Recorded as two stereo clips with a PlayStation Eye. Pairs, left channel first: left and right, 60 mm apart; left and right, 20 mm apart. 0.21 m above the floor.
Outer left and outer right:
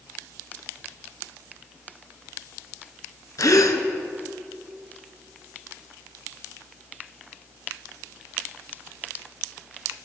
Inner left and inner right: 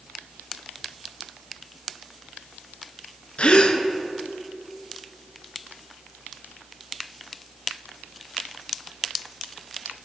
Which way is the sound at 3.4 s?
75° left (ahead or behind).